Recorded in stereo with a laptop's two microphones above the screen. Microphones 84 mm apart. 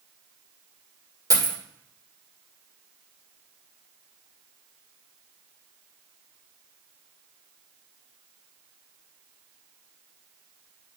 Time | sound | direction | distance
1.3 | a dropped coin | 45° right (ahead or behind) | 1.8 m